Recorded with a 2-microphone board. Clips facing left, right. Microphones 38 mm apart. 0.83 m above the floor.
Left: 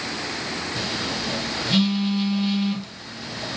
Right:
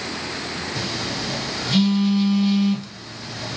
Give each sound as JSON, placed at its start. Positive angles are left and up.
{"t": 0.8, "sound": "a phone buzzing", "side_deg": 15, "distance_m": 3.5}